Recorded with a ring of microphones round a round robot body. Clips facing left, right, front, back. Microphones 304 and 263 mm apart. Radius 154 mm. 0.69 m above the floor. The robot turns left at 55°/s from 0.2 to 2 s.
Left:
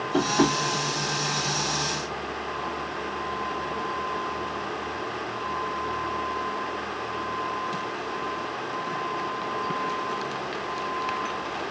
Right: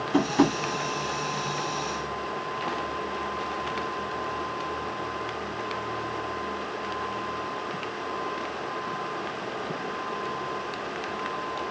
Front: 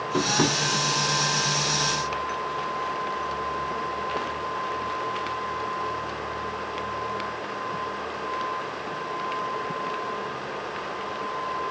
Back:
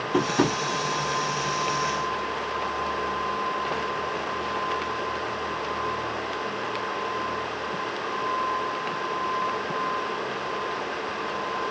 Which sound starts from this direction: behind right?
Tapping, at 0.1 s.